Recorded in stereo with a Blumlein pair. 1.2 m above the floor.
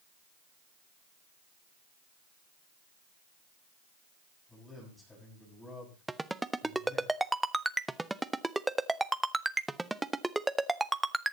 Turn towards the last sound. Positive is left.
turn(degrees=-5)